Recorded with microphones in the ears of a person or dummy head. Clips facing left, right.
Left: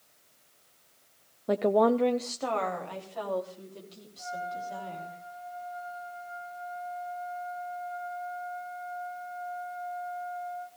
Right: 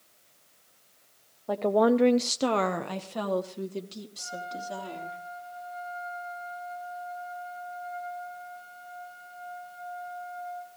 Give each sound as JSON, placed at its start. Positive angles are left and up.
{"t": 1.5, "sound": "a woman speaking", "side_deg": 30, "distance_m": 0.6}
{"t": 4.2, "sound": "a trumpet", "side_deg": -40, "distance_m": 9.5}